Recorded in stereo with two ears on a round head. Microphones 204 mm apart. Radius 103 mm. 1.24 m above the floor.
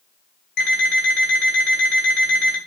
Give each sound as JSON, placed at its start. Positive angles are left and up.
{"t": 0.6, "sound": "an alarm clock", "side_deg": 50, "distance_m": 2.5}